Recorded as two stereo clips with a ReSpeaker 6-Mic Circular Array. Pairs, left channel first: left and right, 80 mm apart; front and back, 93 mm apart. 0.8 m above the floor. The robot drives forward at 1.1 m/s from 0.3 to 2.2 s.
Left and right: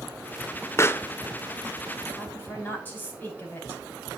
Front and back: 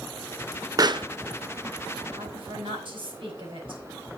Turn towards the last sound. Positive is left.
turn(degrees=160)